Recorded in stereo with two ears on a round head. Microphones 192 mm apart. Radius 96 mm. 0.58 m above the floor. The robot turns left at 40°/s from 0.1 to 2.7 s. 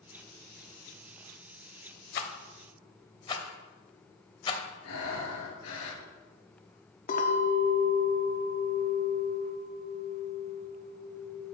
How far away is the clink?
About 0.7 m.